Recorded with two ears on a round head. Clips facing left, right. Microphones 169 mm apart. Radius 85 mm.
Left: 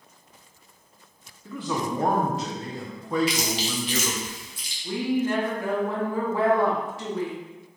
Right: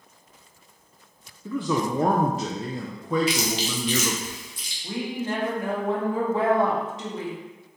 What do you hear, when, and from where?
1.4 s a man speaking: 80° right, 0.5 m
3.3 s chewing: 80° right, 1.2 m
4.8 s a woman speaking: 20° right (ahead or behind), 1.1 m